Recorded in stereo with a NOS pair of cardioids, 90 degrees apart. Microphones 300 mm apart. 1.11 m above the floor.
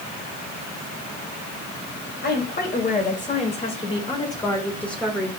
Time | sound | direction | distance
2.2 | a woman speaking | 35° left | 4.5 m